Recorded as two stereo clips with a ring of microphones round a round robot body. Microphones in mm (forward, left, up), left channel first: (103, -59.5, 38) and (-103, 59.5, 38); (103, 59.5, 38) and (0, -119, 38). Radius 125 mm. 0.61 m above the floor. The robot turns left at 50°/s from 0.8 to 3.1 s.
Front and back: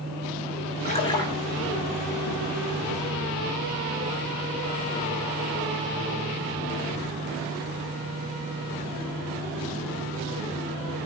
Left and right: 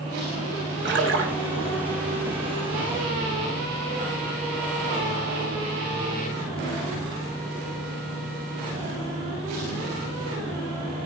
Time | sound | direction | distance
0.8 | a splash | 90° right | 4.5 m